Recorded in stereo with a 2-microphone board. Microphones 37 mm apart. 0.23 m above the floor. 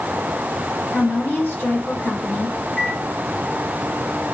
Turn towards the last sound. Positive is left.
turn(degrees=30)  # may be behind; listen again after turning